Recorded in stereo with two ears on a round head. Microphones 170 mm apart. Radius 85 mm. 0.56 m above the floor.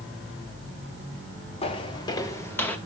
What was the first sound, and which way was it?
Footsteps, 30° left (ahead or behind).